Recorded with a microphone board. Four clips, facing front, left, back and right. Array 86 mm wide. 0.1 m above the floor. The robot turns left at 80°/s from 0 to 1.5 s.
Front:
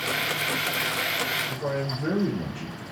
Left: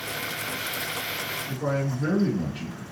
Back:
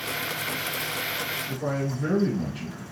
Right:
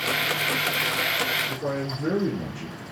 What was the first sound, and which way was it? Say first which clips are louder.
A man speaking: left 1 dB, even; 110° left.